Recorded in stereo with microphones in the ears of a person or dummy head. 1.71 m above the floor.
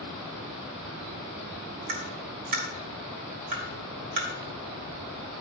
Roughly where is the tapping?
Right.